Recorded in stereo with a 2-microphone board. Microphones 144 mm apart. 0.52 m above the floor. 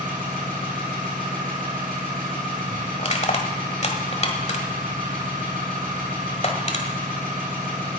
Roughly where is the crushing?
Left.